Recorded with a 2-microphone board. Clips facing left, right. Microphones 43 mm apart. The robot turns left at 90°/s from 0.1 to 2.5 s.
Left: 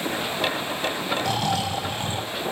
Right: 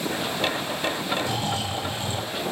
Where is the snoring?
120° left, 3 m; by 2.3 s 15° left, 3 m.